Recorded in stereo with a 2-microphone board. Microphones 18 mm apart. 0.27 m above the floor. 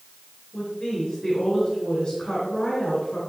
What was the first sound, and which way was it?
A woman speaking, 40° left (ahead or behind).